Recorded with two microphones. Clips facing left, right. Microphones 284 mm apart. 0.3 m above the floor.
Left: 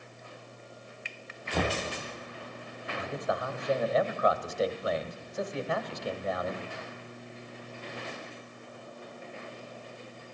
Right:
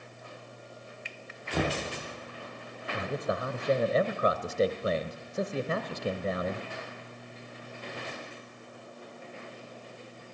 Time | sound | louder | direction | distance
1.5 | knocking | even | 5° right (ahead or behind) | 3 m
2.9 | a man speaking | right 1 dB | 35° right (ahead or behind) | 1.3 m